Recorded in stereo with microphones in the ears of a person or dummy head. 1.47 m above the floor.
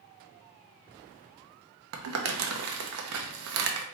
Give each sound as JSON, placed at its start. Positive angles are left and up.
{"t": 1.9, "sound": "crumpling", "side_deg": -65, "distance_m": 0.8}